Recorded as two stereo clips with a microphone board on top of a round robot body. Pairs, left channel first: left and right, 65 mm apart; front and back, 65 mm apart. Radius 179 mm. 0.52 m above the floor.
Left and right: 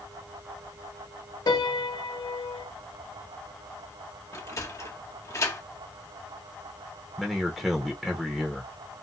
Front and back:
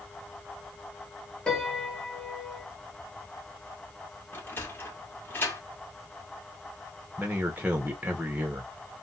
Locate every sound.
1.5 s a piano: 80° left, 0.9 m
4.3 s a sliding door: 55° left, 1.3 m
7.2 s a man speaking: 175° right, 1.1 m